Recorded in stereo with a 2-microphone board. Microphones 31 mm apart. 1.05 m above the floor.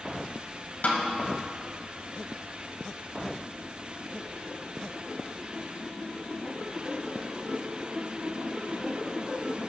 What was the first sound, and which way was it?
A snare drum, 60° left (ahead or behind).